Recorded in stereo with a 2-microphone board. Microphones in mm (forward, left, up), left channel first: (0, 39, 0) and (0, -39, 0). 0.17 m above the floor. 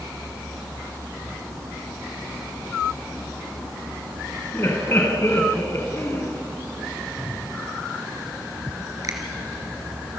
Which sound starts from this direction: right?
A finger snap, at 9.0 s.